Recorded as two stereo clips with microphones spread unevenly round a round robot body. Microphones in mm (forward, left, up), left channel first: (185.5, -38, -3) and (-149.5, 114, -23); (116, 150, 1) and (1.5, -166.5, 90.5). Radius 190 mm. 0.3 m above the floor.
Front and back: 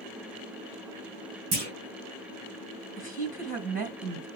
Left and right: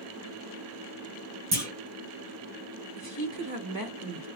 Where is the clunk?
155° right, 3 m.